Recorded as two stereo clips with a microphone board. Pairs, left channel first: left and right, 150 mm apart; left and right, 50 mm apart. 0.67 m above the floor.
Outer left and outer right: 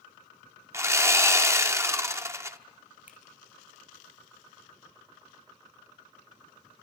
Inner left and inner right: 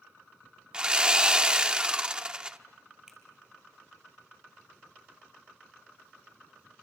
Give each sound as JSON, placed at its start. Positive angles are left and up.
{"t": 0.7, "sound": "sawing", "side_deg": -20, "distance_m": 1.2}
{"t": 3.1, "sound": "a finger snap", "side_deg": -10, "distance_m": 4.5}